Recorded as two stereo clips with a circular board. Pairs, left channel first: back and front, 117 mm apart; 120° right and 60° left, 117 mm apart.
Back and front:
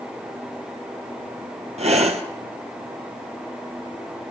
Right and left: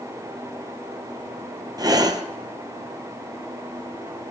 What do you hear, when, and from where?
1.8 s breathing: 5° left, 1.3 m